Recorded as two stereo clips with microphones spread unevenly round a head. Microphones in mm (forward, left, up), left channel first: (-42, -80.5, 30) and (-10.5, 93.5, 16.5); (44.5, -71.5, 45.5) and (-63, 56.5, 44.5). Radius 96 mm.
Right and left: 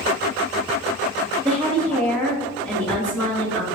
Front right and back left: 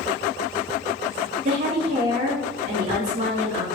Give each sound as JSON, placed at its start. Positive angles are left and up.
{"t": 1.4, "sound": "a woman speaking", "azimuth_deg": 175, "distance_m": 1.6}